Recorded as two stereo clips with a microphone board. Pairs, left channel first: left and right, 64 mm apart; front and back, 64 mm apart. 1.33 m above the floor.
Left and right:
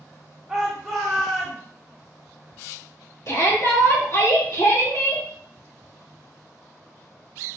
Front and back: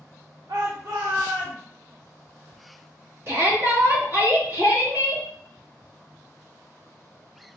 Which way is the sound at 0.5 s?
175° right.